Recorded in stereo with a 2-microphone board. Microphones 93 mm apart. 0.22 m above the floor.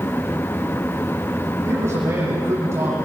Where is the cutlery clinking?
I don't hear cutlery clinking.